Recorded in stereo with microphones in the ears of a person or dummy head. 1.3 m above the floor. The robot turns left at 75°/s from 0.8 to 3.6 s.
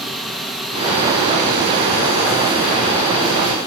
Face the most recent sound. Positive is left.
turn(degrees=150)